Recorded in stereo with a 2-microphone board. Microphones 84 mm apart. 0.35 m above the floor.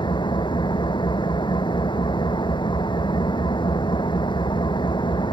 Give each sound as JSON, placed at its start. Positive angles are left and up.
{"t": 0.0, "sound": "an engine running", "side_deg": 70}